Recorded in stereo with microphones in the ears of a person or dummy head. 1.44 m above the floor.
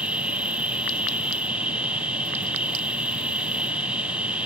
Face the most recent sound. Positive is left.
turn(degrees=0)  # may be behind; listen again after turning